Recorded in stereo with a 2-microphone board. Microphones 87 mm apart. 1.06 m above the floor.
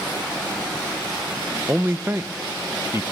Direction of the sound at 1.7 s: 30° right (ahead or behind).